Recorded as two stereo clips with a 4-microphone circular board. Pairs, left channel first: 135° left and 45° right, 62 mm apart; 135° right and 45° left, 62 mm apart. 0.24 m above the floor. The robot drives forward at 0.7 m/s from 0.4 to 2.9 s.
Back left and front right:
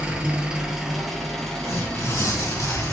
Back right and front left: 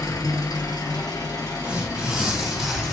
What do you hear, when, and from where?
0.0 s an engine running: 120° right, 1.2 m; by 2.9 s 155° right, 2.5 m
1.6 s tearing paper: 115° left, 2.5 m; by 2.9 s 135° left, 3 m